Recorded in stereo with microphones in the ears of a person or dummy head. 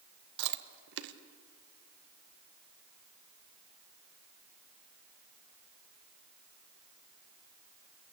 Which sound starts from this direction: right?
Chewing, at 0.4 s.